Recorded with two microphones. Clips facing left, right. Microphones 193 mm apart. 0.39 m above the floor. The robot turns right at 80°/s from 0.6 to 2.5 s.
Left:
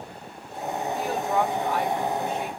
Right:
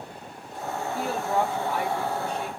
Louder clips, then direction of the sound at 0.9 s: Even; 95° right.